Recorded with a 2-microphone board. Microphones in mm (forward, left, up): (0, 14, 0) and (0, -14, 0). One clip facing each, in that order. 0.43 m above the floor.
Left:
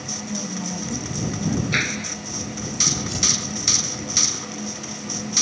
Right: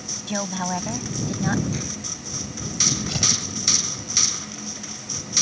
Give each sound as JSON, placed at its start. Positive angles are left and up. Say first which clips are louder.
{"t": 0.3, "sound": "a woman speaking", "louder": "right 5 dB", "side_deg": -65}
{"t": 1.7, "sound": "a clap", "louder": "left 8 dB", "side_deg": 65}
{"t": 3.1, "sound": "tearing paper", "louder": "even", "side_deg": -30}